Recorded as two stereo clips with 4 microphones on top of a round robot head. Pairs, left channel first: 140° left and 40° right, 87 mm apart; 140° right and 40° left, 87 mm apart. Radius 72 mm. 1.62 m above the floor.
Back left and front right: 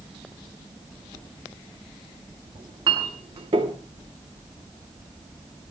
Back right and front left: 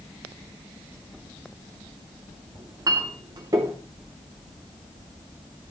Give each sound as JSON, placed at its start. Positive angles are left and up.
{"t": 2.5, "sound": "a clink", "azimuth_deg": -10, "distance_m": 2.5}